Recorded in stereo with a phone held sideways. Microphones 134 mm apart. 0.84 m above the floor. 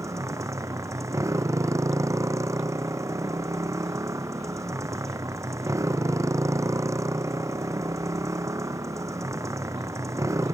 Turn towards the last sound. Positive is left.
turn(degrees=-25)  # may be behind; listen again after turning